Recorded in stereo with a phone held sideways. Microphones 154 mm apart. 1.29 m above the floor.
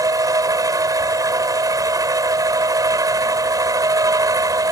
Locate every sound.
0.0 s a machine running: 25° right (ahead or behind)